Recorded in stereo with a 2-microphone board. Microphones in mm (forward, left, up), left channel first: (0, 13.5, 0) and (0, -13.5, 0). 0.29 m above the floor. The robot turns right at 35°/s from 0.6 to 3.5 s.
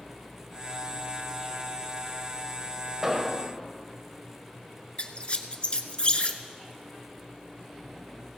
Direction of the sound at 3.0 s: 20° right (ahead or behind).